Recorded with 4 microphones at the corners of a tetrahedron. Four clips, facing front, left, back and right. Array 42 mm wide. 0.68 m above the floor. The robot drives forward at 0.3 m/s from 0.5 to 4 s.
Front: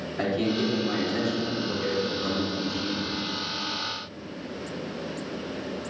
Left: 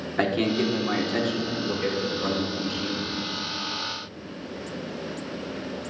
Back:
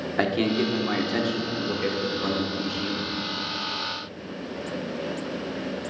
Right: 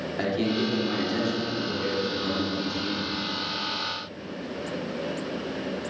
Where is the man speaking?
145° left, 1.5 m; by 3.1 s 160° left, 2 m.